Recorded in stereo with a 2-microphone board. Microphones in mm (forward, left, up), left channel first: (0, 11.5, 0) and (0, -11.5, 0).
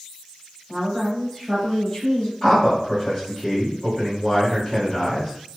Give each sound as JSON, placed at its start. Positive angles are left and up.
{"t": 0.7, "sound": "a woman speaking", "side_deg": -5, "distance_m": 1.5}
{"t": 2.4, "sound": "a man speaking", "side_deg": 20, "distance_m": 1.2}